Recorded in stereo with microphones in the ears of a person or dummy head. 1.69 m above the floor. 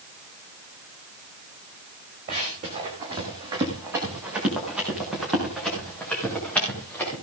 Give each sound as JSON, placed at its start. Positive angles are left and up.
{"t": 2.3, "sound": "running footsteps", "side_deg": -35, "distance_m": 5.5}